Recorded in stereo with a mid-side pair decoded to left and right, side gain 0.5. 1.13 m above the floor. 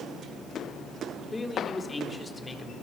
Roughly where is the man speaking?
Ahead left.